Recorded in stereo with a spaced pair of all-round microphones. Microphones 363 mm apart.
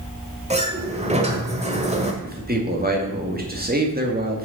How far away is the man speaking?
About 2 m.